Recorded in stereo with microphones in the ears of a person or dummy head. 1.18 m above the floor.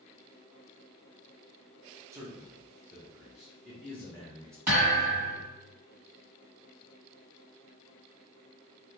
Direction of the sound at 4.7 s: 15° right (ahead or behind).